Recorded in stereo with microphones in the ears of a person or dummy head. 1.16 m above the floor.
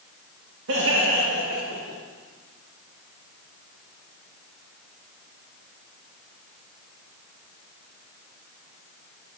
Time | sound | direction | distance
0.7 | laughter | 60° right (ahead or behind) | 1.9 m